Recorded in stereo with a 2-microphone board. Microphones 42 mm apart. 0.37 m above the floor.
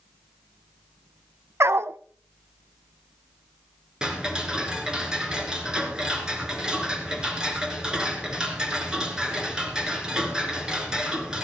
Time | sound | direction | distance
1.6 | a dog barking | 70° right (ahead or behind) | 0.5 m
4.0 | ticking | 15° right (ahead or behind) | 2.5 m